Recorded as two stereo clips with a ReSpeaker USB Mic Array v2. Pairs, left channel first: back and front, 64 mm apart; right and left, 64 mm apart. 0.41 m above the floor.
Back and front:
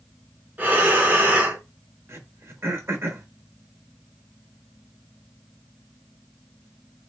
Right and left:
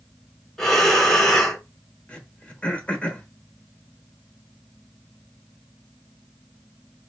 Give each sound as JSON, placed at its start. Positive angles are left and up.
{"t": 0.6, "sound": "breathing", "azimuth_deg": -15, "distance_m": 0.9}
{"t": 2.1, "sound": "throat clearing", "azimuth_deg": -25, "distance_m": 0.9}